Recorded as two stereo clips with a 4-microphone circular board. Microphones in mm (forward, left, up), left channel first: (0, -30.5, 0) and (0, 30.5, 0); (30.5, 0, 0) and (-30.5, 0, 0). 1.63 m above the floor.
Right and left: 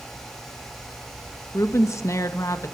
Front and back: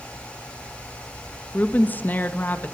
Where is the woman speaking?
60° right, 1.8 m.